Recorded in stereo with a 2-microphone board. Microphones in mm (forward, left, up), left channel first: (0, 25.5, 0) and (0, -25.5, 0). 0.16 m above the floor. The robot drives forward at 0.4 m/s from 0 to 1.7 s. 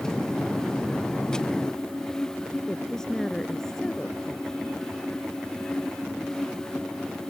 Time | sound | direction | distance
2.7 | a woman speaking | 10° left (ahead or behind) | ?